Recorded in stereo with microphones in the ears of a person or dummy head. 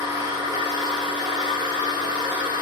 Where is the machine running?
15° right (ahead or behind), 1.9 m.